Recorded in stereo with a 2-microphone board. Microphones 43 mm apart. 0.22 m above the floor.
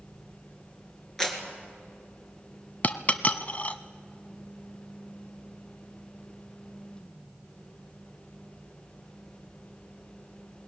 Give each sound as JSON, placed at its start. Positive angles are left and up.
{"t": 1.2, "sound": "a clap", "side_deg": 10, "distance_m": 2.5}
{"t": 2.8, "sound": "a dropped coin", "side_deg": 35, "distance_m": 0.8}